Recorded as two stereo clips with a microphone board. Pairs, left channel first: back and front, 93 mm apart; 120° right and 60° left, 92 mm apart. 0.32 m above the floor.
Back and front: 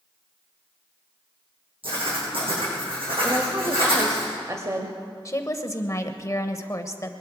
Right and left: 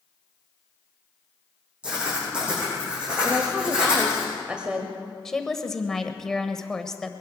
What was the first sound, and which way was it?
Writing, 20° right.